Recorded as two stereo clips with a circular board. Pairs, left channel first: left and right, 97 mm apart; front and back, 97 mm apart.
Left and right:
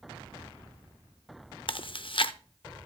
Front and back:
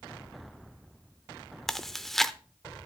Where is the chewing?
85° left, 0.5 m.